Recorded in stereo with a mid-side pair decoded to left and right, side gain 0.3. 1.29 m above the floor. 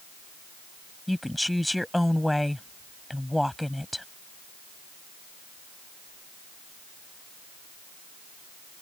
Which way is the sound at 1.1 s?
10° left.